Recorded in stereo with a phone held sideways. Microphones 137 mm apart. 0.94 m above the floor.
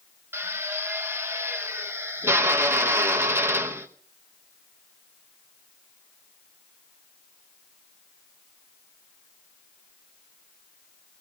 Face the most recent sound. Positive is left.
turn(degrees=-20)  # may be behind; listen again after turning